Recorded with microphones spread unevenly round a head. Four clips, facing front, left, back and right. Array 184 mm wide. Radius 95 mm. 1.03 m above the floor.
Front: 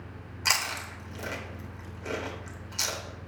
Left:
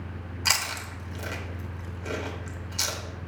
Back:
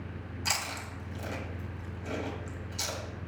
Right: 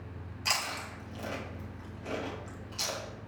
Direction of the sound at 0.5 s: 45° left.